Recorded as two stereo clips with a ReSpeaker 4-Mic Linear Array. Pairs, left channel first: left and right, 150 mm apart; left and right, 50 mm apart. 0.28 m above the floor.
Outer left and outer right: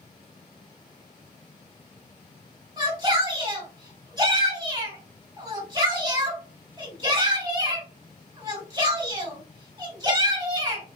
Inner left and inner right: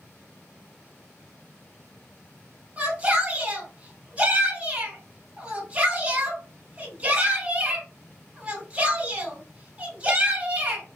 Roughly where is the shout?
Right.